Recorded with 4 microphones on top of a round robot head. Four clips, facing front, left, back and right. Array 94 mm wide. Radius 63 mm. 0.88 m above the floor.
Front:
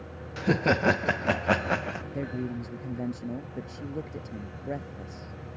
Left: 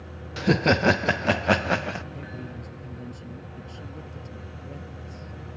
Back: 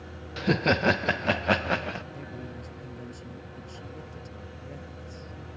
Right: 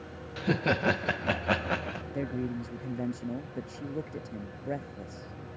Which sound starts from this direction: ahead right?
A man speaking, at 2.1 s.